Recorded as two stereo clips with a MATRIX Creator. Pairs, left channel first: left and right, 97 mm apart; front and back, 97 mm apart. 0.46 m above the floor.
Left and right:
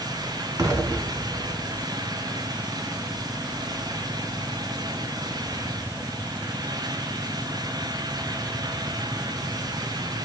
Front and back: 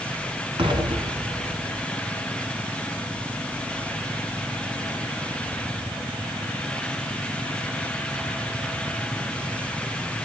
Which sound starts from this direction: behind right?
An explosion, at 0.6 s.